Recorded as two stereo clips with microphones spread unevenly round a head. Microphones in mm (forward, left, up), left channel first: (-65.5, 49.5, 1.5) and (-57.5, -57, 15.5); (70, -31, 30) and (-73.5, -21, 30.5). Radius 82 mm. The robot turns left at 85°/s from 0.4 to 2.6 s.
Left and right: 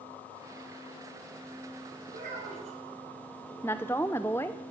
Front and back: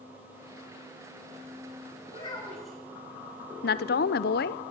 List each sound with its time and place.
2.1 s a child speaking: 50° right, 6 m; by 2.8 s 95° right, 6 m
3.6 s a woman speaking: 20° left, 0.6 m